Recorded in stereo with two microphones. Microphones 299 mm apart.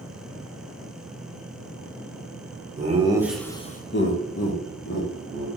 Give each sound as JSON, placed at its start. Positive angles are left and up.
{"t": 2.8, "sound": "laughter", "side_deg": -25, "distance_m": 0.8}